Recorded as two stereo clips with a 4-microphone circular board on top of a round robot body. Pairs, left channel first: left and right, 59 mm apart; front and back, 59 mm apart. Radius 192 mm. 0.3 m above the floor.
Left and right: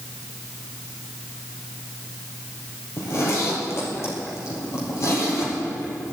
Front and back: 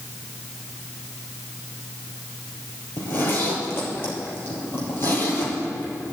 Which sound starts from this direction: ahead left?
A zipper, at 3.0 s.